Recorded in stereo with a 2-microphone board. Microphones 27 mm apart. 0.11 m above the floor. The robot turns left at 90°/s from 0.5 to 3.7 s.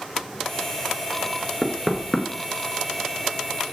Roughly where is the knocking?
Centre.